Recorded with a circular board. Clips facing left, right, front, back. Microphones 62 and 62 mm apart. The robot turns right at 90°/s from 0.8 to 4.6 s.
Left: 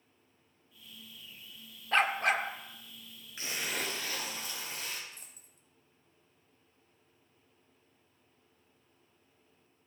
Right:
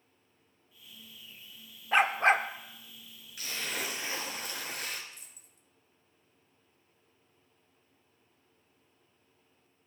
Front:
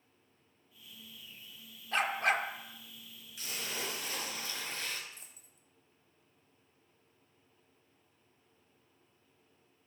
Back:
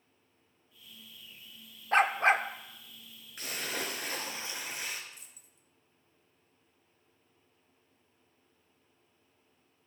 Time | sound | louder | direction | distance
1.9 | a dog barking | right 3 dB, back 6 dB | 165° right | 0.9 m
3.4 | a splash | even, back 3 dB | 145° left | 3 m
5.1 | a dropped coin | even, even | 50° left | 2 m